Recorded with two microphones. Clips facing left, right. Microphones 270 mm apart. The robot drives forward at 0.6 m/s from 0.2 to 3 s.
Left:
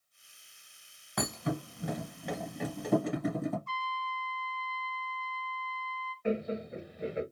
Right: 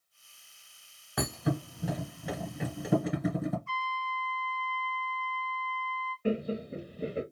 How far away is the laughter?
About 0.7 m.